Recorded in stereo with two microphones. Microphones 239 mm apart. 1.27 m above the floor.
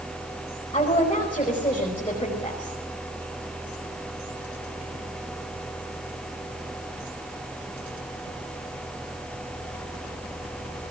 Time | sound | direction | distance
0.7 | a woman speaking | 20° left (ahead or behind) | 5 m